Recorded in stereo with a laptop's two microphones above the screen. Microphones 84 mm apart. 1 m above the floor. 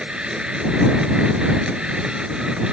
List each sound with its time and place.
0.0 s a machine running: 10° right (ahead or behind)